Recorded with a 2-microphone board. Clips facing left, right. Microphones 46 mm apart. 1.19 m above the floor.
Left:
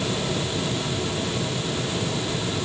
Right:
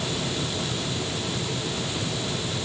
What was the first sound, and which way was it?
Only background noise.